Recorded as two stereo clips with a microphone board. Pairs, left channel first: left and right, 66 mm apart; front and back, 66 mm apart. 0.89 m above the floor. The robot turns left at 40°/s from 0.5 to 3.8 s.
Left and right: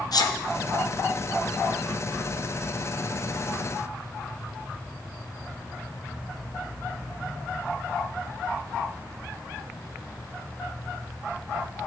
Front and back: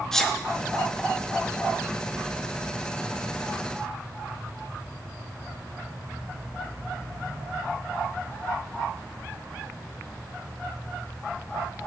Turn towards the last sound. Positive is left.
turn(degrees=-50)